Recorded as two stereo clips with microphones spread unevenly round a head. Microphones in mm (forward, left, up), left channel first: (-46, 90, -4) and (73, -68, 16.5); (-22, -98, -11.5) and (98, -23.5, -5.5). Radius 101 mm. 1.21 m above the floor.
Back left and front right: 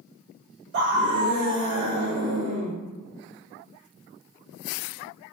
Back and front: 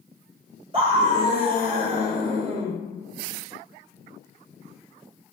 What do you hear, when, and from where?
0.7 s a scream: 25° right, 1.4 m